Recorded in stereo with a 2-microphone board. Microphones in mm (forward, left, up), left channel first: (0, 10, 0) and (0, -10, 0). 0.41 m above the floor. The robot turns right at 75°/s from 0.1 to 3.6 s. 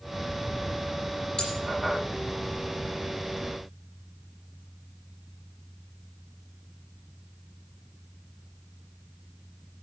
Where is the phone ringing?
I don't hear a phone ringing.